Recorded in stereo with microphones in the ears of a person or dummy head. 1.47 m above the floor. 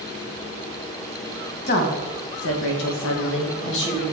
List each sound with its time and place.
1.7 s a woman speaking: 40° left (ahead or behind), 1.4 m; by 4.0 s 65° left (ahead or behind), 2 m